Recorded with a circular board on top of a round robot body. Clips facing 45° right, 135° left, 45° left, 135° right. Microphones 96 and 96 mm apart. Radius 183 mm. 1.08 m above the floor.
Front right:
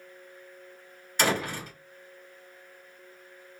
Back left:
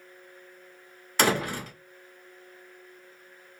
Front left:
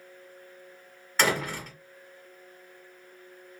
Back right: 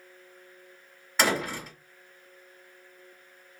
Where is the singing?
No singing in this recording.